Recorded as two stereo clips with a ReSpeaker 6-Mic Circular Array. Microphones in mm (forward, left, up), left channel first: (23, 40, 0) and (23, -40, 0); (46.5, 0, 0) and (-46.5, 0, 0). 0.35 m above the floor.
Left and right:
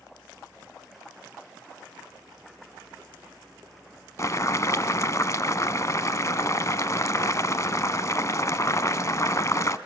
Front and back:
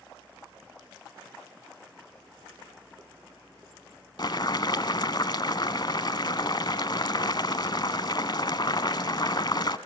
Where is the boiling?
40° left, 0.8 m.